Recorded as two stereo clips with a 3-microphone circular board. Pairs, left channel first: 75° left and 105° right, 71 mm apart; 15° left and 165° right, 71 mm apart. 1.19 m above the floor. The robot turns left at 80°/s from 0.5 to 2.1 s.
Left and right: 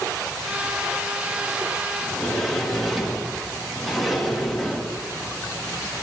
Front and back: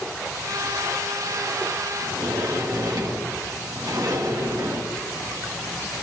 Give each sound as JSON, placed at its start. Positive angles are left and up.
{"t": 2.0, "sound": "a sliding door", "azimuth_deg": 175, "distance_m": 1.5}